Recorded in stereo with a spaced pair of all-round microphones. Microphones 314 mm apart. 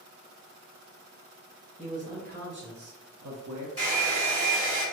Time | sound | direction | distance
1.8 | a man speaking | 20° right (ahead or behind) | 1.3 m
3.8 | a hair dryer | 45° right (ahead or behind) | 1.4 m